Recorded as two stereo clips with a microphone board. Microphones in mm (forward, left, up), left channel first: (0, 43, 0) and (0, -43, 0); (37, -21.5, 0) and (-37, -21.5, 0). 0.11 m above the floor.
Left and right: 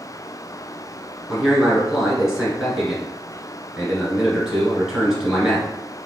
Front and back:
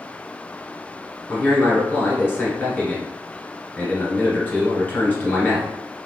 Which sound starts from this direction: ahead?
A man speaking, at 1.3 s.